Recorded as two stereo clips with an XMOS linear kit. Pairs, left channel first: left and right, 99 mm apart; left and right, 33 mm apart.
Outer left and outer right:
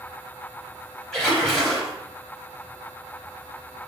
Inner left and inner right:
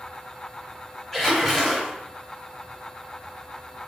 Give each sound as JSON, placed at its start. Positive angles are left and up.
{"t": 1.1, "sound": "a splash", "side_deg": 5, "distance_m": 1.3}